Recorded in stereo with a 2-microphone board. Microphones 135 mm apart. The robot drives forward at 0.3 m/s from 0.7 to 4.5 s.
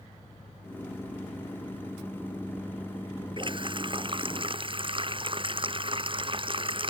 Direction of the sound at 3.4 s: 40° right (ahead or behind).